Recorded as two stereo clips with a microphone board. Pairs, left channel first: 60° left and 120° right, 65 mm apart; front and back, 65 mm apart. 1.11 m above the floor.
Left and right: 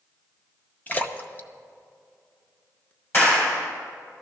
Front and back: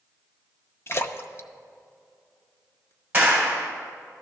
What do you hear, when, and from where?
0.9 s a splash: 10° left, 0.7 m
3.1 s a clap: 115° left, 4 m